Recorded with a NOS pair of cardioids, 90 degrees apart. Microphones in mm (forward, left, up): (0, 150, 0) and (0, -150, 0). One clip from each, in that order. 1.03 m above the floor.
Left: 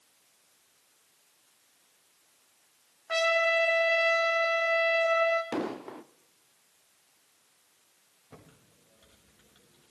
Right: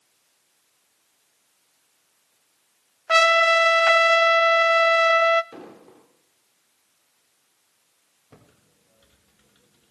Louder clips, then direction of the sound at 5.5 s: Left 9 dB; 65° left.